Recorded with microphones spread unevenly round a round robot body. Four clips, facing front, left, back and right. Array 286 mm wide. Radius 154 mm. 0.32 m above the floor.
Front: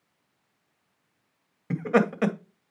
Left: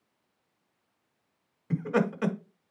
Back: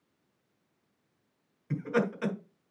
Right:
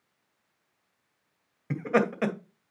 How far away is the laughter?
About 2 m.